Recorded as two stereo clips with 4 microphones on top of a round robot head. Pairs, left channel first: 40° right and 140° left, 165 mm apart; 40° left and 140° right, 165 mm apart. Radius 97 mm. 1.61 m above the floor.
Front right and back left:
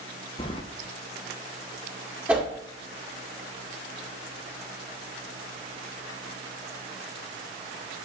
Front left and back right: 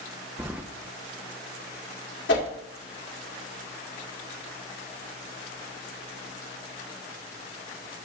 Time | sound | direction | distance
0.4 | keys jangling | 70° right | 0.5 m
2.3 | a whoosh | 60° left | 2.0 m